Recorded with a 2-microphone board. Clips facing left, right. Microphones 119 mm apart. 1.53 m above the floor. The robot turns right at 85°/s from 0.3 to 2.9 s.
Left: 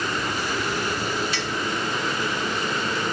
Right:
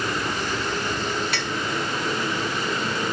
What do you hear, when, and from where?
1.3 s a clink: 60° right (ahead or behind); by 1.6 s 45° right (ahead or behind)